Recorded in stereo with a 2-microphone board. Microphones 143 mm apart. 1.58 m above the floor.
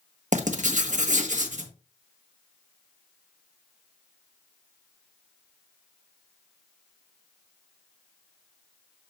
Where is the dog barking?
No dog barking in this recording.